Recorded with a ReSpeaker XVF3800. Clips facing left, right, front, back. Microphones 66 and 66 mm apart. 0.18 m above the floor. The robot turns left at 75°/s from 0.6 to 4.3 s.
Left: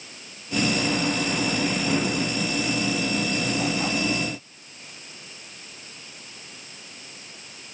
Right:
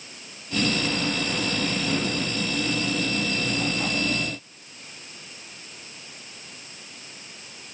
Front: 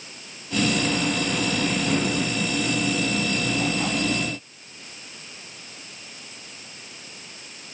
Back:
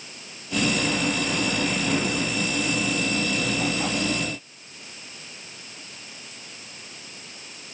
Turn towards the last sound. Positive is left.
No sound to turn to.